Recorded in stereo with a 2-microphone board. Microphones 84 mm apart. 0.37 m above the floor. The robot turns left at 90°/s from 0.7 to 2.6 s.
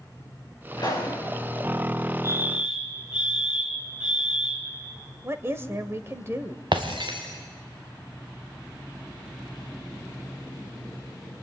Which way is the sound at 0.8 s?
60° left.